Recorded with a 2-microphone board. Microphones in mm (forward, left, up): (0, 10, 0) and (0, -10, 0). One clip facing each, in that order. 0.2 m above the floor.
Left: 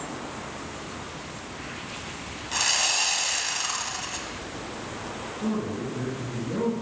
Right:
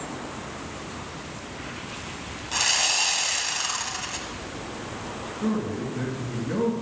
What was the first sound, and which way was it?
Sawing, 5° right (ahead or behind).